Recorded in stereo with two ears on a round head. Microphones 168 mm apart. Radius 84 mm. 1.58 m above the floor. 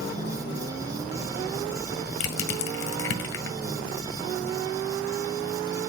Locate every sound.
2.2 s crushing: 70° left (ahead or behind), 1.4 m